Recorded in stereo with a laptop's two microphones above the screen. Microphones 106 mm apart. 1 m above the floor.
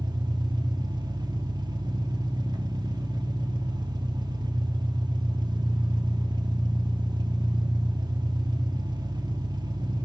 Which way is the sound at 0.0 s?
40° right (ahead or behind).